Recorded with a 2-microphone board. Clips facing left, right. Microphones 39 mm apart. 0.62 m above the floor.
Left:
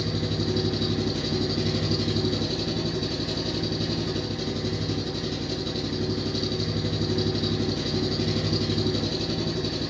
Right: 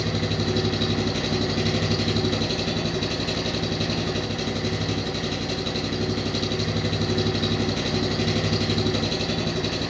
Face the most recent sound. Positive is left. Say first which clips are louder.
# right 2 dB
turn(degrees=-65)  # may be behind; listen again after turning